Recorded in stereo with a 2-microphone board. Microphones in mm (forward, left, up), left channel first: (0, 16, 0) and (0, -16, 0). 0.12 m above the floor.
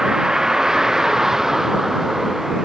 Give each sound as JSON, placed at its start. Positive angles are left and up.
{"t": 0.0, "sound": "a vehicle", "side_deg": -20}